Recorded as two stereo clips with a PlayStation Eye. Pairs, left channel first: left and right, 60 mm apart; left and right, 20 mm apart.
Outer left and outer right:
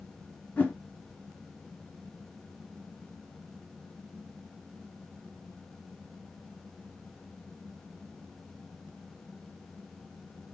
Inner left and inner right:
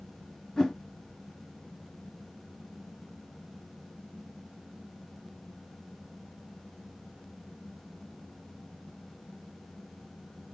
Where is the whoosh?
25° left (ahead or behind), 1.1 m.